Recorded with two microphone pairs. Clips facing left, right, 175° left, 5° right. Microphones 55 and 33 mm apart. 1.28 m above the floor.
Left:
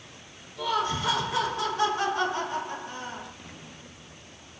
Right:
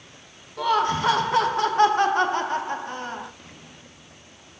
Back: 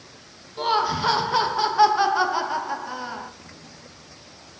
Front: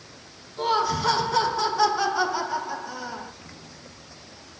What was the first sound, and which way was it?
Laughter, 125° right.